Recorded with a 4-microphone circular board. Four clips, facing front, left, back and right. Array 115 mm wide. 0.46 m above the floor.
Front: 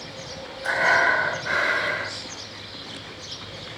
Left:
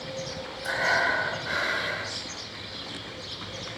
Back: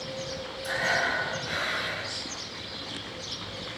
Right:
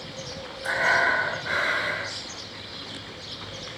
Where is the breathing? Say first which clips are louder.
Right 3 dB, front 8 dB; 20° right, 1.4 m.